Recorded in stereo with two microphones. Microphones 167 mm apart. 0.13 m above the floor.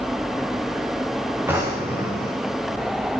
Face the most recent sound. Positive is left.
turn(degrees=-15)  # may be behind; listen again after turning